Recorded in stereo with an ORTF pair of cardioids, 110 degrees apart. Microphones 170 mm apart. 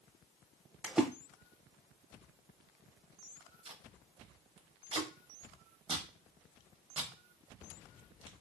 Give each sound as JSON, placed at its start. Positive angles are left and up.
{"t": 0.8, "sound": "a splash", "azimuth_deg": -5, "distance_m": 0.6}
{"t": 3.6, "sound": "tape being pulled", "azimuth_deg": -30, "distance_m": 1.0}